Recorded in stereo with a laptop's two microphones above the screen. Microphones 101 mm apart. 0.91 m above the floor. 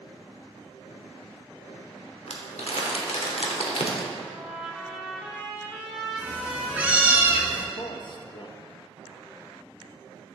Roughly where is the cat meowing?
Centre.